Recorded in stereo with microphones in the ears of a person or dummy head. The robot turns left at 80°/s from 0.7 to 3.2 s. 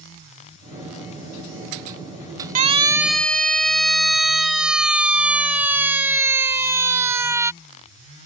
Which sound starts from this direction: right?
A siren, at 2.5 s.